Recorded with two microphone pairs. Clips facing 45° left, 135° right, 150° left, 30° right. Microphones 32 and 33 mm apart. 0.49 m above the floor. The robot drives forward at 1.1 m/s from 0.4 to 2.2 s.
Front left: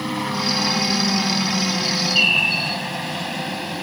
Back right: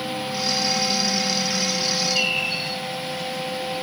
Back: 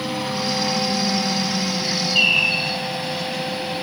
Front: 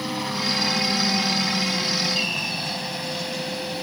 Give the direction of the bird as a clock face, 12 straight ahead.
8 o'clock.